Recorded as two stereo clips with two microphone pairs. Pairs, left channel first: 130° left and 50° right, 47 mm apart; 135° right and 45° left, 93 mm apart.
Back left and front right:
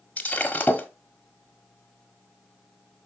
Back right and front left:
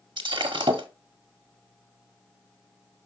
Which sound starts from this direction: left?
Breaking glass, at 0.2 s.